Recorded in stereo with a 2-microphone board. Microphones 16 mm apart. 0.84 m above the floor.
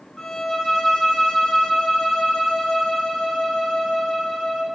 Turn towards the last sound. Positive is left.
turn(degrees=50)  # may be behind; listen again after turning